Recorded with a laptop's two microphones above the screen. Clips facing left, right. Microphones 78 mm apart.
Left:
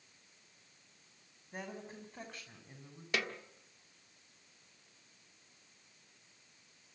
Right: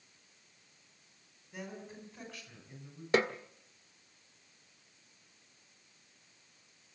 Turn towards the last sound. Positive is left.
turn(degrees=-35)  # may be behind; listen again after turning